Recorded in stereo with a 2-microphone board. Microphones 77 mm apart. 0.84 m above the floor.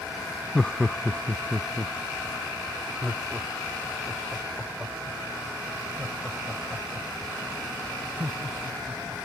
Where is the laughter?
10° left (ahead or behind); by 9.2 s 15° right (ahead or behind).